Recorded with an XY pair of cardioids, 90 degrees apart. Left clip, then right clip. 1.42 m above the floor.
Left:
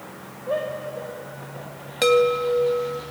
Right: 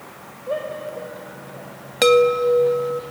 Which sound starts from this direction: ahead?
A shout, at 0.5 s.